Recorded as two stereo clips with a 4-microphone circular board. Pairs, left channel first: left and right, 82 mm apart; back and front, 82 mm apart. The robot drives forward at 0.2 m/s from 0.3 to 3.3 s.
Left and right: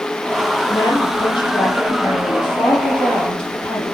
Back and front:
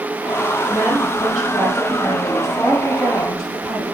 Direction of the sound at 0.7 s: 85° left.